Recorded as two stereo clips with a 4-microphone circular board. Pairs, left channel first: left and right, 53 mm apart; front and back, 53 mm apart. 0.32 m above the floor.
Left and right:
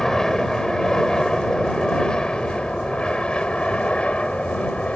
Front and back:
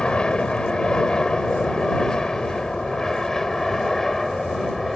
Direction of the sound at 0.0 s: 30° left.